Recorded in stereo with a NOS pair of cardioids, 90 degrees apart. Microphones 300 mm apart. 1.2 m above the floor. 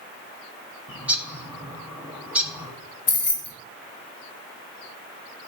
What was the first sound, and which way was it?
A bird, 5° right.